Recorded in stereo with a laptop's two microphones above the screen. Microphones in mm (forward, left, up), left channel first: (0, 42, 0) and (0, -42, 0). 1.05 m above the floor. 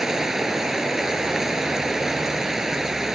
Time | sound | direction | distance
0.0 | running water | 5° right (ahead or behind) | ?